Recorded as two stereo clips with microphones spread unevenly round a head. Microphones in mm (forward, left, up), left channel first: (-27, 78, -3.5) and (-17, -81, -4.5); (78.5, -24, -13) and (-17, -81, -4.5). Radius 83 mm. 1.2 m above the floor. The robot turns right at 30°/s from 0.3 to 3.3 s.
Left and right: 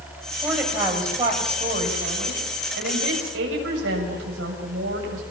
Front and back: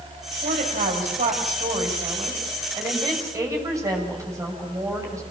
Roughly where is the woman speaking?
Behind.